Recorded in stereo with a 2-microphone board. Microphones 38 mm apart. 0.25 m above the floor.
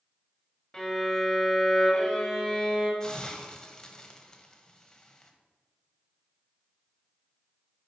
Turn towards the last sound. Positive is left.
turn(degrees=20)  # may be behind; listen again after turning